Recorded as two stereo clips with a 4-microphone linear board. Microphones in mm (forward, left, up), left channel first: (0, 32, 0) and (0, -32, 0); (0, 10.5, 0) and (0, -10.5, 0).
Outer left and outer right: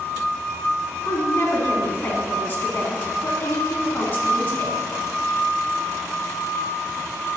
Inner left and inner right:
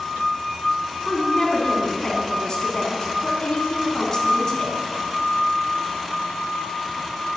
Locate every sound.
1.1 s a woman speaking: 30° left (ahead or behind), 1.7 m